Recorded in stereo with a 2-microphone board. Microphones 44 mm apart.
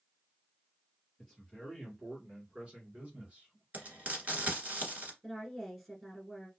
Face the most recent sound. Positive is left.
turn(degrees=0)  # may be behind; listen again after turning